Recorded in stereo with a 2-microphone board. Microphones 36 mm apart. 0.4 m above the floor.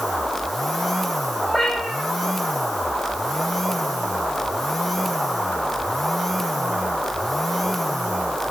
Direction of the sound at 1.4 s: 5° right (ahead or behind).